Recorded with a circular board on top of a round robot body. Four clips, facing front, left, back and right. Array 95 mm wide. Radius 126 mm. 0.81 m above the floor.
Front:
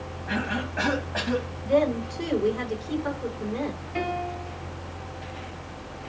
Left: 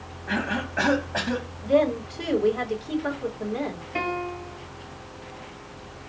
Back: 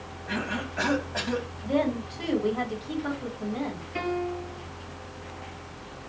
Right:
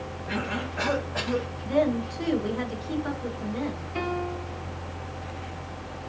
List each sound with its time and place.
0.3 s a cough: 80° left, 2 m
1.6 s a woman speaking: 105° left, 3 m
4.0 s a piano: 85° left, 3 m